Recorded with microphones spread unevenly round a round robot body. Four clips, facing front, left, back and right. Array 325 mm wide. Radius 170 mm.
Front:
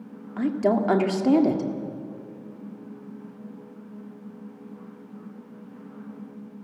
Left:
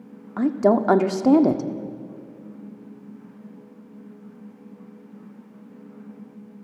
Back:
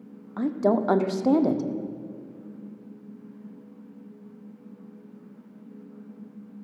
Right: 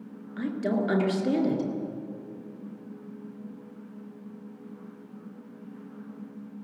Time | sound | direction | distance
0.4 | a woman speaking | 70° left | 1.8 m